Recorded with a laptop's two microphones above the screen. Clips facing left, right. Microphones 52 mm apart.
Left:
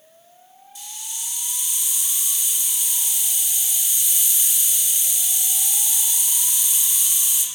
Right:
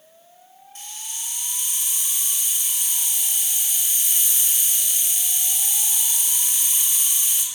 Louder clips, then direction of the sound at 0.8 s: Even; 45° right (ahead or behind).